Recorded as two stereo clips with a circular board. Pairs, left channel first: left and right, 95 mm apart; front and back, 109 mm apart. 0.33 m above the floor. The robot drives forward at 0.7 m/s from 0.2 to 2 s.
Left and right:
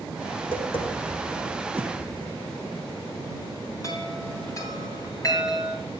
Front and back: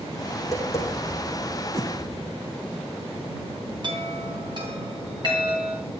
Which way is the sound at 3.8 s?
140° left.